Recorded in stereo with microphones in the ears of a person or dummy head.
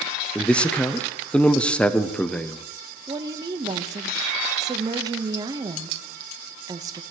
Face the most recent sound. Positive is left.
turn(degrees=-20)  # may be behind; listen again after turning